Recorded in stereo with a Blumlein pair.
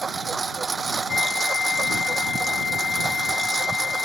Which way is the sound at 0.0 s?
15° right.